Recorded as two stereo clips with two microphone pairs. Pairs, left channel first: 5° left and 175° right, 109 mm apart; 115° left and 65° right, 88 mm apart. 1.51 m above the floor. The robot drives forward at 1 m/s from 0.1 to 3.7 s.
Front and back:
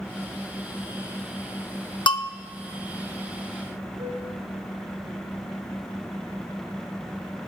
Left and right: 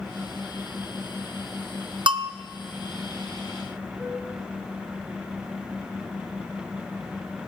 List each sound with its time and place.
2.1 s a bell: 40° right, 0.6 m; by 2.3 s 60° right, 0.5 m
4.0 s a flute: 145° right, 7.5 m